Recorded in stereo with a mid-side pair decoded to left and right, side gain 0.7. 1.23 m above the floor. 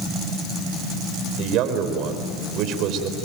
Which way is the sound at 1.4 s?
55° right.